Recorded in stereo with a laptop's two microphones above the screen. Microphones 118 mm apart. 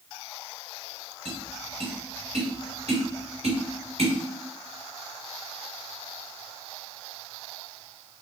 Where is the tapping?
65° right (ahead or behind), 1.9 m.